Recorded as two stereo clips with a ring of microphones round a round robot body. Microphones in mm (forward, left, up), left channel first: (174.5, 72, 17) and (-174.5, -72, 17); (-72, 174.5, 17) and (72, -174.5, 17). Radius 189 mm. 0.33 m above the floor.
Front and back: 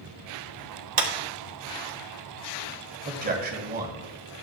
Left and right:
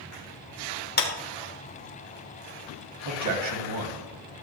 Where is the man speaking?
95° right, 1.8 m.